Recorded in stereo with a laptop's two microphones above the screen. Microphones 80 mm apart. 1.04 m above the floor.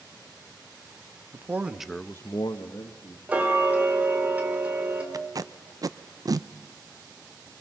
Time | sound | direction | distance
1.3 | a man speaking | 30° right (ahead or behind) | 1.3 m
3.3 | ticking | 20° right (ahead or behind) | 1.5 m
5.1 | tape being pulled | 50° right (ahead or behind) | 0.5 m